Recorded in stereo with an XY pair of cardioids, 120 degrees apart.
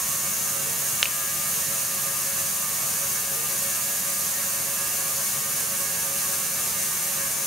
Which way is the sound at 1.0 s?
5° right.